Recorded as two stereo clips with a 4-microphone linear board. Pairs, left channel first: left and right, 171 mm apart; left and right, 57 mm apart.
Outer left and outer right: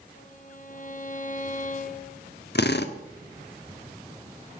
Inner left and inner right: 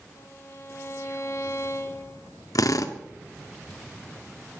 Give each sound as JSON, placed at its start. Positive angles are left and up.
{"t": 0.2, "sound": "a violin", "side_deg": 50, "distance_m": 1.4}
{"t": 2.5, "sound": "a drill", "side_deg": 75, "distance_m": 1.0}